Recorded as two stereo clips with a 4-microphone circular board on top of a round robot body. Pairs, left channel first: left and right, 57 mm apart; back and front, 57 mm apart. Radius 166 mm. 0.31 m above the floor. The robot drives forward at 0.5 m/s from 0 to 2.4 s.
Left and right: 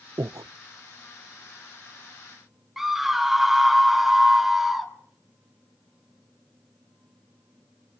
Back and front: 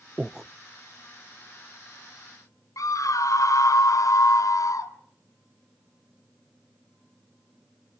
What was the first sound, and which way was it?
Breathing, 70° right.